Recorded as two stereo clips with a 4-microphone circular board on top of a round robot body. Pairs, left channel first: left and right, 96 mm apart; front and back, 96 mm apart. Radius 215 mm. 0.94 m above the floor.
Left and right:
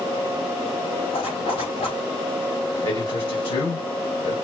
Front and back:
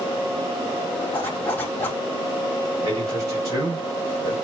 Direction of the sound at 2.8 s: 125° left.